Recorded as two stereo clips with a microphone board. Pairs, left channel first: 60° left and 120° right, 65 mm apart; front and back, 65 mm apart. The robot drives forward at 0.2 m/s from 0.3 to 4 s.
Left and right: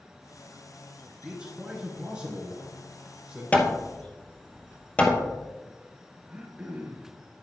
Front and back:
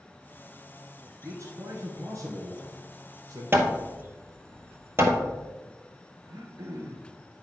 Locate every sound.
1.2 s a man speaking: 170° left, 1.6 m
3.5 s hammering: 130° left, 1.2 m
6.3 s throat clearing: 170° left, 2 m